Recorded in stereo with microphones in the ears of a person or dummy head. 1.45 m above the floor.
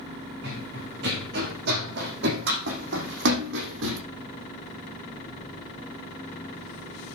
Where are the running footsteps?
55° right (ahead or behind), 6 m; by 4.0 s 65° right (ahead or behind), 4 m.